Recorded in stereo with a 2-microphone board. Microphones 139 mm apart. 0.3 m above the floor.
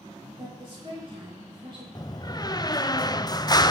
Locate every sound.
0.4 s a woman speaking: 45° right (ahead or behind), 8.5 m
1.9 s a door slam: 30° left (ahead or behind), 0.7 m